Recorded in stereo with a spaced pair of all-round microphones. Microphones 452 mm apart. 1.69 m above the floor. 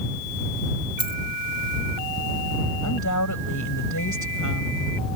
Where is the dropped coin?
10° left (ahead or behind).